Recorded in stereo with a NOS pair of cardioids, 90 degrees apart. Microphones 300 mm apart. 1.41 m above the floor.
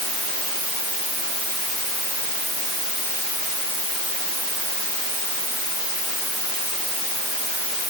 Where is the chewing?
No chewing in this recording.